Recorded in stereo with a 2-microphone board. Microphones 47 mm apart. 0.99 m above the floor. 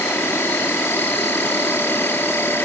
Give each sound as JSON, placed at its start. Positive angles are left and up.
{"t": 0.0, "sound": "an insect", "side_deg": 60}